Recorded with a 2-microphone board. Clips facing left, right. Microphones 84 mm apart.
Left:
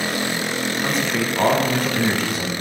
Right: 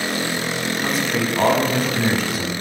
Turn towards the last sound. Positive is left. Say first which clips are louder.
# right 1 dB
turn(degrees=-5)  # may be behind; listen again after turning